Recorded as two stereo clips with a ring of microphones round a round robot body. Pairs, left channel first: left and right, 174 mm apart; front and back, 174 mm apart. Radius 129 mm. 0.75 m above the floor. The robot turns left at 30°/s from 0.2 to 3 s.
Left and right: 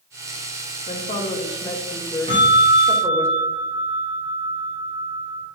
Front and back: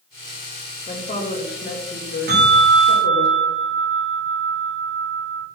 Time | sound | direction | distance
0.9 | a woman speaking | 50° left | 3 m
2.3 | a bell | 155° left | 4 m